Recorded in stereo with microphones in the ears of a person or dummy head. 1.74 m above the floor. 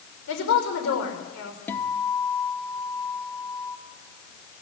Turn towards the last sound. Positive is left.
turn(degrees=10)  # may be behind; listen again after turning